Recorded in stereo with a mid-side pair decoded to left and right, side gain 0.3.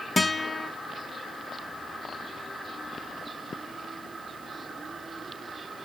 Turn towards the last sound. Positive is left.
turn(degrees=35)